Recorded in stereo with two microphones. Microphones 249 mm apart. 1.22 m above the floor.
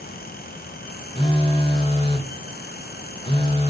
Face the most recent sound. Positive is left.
turn(degrees=20)  # may be behind; listen again after turning